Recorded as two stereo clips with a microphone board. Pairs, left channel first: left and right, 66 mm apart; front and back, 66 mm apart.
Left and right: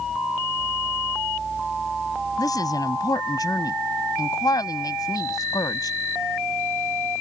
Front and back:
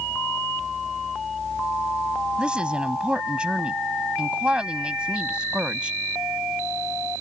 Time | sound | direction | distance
2.4 | a woman speaking | 105° left | ?